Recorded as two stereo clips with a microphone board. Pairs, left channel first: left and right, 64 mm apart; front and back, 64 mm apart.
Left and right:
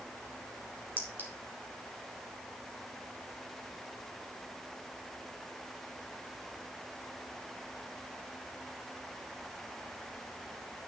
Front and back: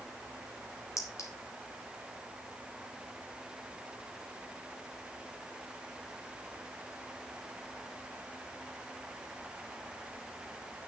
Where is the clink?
30° right, 3 m.